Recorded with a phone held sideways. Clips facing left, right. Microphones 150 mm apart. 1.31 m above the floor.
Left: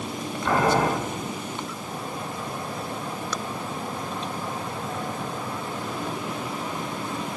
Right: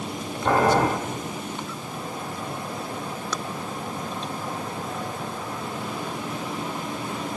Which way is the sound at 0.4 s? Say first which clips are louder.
Right 2 dB; 35° right (ahead or behind).